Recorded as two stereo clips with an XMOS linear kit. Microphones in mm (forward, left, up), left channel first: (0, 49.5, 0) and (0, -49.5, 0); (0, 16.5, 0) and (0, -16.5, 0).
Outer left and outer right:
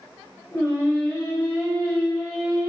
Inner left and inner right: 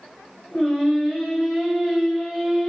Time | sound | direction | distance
0.5 | singing | 20° left (ahead or behind) | 1.5 m